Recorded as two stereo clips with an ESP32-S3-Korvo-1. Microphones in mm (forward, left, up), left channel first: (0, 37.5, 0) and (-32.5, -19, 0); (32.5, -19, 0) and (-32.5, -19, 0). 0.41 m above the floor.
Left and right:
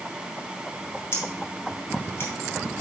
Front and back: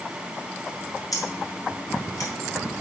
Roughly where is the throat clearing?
No throat clearing in this recording.